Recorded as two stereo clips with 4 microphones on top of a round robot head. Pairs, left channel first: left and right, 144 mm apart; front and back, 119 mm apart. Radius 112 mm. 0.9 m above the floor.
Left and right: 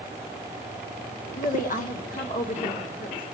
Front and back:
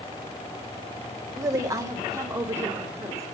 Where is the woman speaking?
115° left, 1.5 m; by 3.2 s 110° left, 3 m.